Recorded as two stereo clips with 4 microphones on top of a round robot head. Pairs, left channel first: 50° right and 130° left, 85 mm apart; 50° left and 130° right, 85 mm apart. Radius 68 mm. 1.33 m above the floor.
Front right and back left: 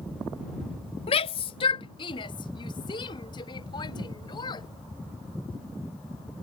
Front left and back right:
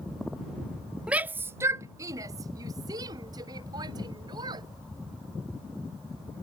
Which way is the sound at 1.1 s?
50° right.